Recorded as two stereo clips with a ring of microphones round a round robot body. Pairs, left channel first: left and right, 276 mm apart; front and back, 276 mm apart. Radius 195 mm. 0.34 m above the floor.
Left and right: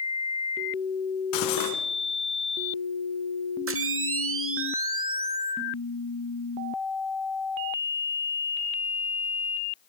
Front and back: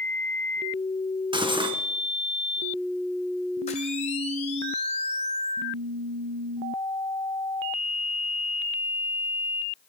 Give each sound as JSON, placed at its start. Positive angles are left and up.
{"t": 1.3, "sound": "cutlery clinking", "azimuth_deg": 105, "distance_m": 2.0}
{"t": 3.7, "sound": "a camera shutter", "azimuth_deg": -65, "distance_m": 1.1}